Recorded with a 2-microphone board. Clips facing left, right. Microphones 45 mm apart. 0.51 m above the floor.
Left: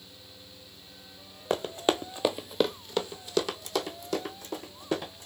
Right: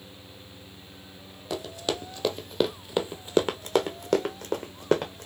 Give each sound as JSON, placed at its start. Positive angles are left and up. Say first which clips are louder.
{"t": 1.5, "sound": "running footsteps", "louder": "left 4 dB", "side_deg": 40, "distance_m": 0.9}